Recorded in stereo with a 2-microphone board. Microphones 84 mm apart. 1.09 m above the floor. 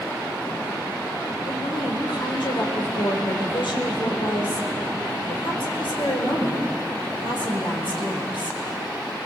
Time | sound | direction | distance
1.4 | a woman speaking | 85° left | 4 m